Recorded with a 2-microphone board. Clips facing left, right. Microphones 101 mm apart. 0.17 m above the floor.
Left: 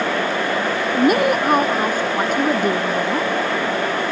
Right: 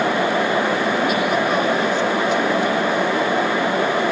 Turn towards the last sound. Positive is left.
turn(degrees=45)  # may be behind; listen again after turning